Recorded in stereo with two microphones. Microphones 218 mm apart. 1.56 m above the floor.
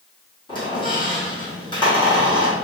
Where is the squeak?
20° left (ahead or behind), 1.1 m.